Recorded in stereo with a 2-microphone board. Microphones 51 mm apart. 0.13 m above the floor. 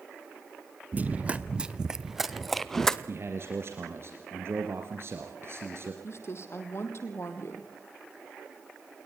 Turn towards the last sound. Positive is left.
turn(degrees=50)  # may be behind; listen again after turning